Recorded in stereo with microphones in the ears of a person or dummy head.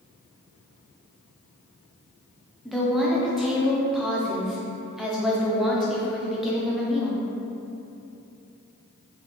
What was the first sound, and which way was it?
A woman speaking, 5° right (ahead or behind).